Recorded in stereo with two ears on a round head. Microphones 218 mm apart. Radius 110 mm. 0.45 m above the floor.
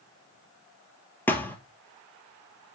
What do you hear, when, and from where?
1.3 s a thud: 10° left (ahead or behind), 1.0 m